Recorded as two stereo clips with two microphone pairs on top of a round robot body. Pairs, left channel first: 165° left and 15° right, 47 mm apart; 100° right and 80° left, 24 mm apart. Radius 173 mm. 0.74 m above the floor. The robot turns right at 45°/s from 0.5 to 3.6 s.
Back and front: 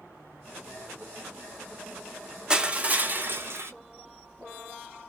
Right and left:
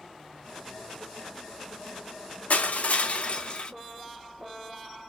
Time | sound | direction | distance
2.5 | crushing | 95° right | 0.8 m